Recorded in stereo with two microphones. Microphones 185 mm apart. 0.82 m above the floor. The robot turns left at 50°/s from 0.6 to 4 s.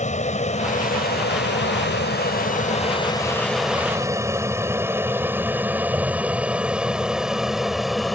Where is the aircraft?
40° left (ahead or behind); by 8.2 s centre (ahead or behind).